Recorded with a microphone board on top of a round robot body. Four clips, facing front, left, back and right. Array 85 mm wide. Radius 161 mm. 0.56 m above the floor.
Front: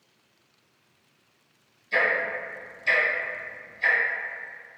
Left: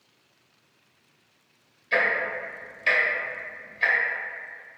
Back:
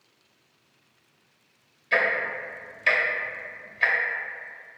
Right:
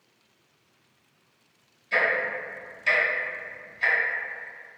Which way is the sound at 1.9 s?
165° left.